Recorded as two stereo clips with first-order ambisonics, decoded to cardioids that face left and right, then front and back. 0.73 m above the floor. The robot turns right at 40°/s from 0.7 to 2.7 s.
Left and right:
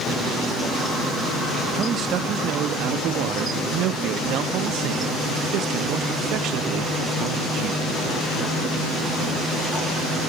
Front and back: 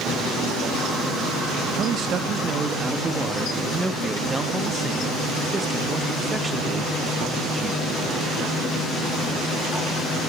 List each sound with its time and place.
1.8 s a man speaking: 145° right, 0.6 m; by 7.8 s 105° right, 0.6 m